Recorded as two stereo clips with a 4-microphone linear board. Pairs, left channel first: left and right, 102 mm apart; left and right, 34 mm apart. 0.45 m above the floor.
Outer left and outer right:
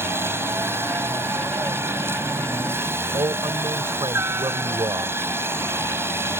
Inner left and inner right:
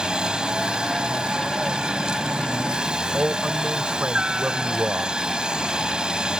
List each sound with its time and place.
0.0 s a helicopter: 25° right (ahead or behind)
3.1 s a man speaking: 55° right (ahead or behind)